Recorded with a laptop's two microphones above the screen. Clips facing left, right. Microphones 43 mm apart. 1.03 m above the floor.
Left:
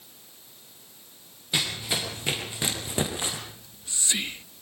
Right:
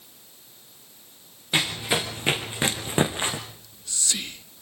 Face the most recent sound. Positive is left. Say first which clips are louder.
# right 1 dB
turn(degrees=25)  # may be behind; listen again after turning